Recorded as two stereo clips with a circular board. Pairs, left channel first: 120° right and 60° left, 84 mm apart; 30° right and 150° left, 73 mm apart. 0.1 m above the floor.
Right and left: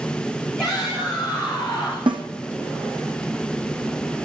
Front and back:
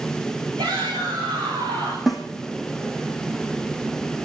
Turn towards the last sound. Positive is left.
turn(degrees=60)